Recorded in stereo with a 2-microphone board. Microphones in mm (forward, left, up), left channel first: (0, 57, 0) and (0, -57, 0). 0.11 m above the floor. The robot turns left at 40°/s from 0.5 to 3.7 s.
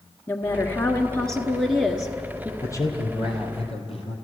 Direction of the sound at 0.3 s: 20° left (ahead or behind).